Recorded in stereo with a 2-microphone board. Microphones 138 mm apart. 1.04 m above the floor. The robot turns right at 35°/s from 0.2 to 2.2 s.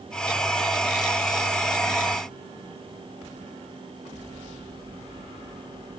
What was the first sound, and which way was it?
Only background noise.